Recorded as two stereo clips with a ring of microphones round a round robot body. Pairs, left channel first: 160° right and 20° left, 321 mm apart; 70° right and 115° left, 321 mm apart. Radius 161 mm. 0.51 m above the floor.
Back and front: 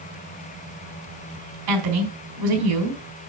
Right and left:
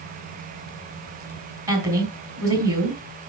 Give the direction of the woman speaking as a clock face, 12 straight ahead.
11 o'clock.